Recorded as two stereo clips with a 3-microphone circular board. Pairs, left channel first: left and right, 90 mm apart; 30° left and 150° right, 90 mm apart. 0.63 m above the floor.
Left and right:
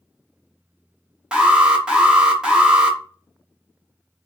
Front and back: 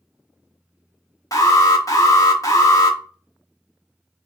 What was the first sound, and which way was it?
An alarm, 10° right.